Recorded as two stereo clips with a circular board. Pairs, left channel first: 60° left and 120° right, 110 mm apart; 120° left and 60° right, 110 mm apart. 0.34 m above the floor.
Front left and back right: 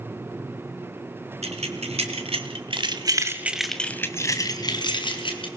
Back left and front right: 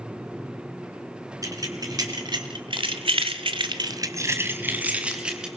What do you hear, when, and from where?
1.4 s keys jangling: 115° right, 3 m; by 5.5 s 25° left, 3 m